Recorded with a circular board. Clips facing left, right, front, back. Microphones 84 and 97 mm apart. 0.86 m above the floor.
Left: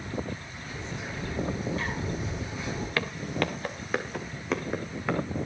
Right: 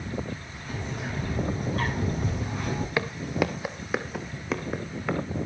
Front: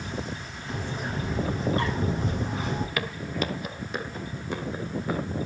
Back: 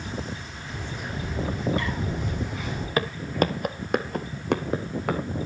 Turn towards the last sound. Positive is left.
turn(degrees=180)